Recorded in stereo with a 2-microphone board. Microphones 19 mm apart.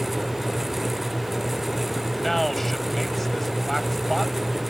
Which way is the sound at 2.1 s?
10° left (ahead or behind).